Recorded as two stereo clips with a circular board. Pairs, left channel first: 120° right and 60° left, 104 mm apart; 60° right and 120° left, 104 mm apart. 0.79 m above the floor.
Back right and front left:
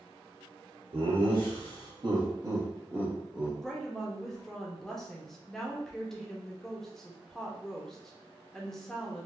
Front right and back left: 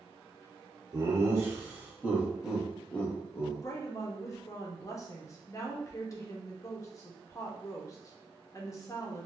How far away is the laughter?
About 1.5 m.